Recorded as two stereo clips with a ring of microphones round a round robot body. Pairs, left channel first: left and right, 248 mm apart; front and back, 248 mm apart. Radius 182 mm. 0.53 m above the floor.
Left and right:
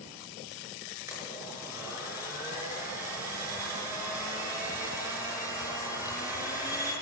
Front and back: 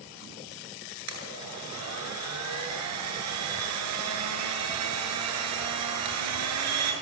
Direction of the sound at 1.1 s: 170° right.